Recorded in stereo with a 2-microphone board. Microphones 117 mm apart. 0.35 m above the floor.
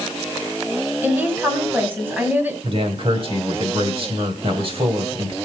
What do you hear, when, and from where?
1.0 s a woman speaking: 15° right (ahead or behind), 2.5 m
2.6 s a man speaking: 50° right (ahead or behind), 1.9 m